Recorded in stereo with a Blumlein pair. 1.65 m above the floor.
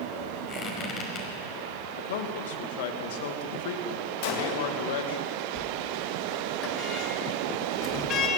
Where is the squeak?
25° left, 5.5 m.